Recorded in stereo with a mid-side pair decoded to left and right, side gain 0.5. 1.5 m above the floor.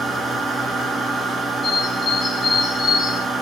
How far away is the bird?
About 1.4 m.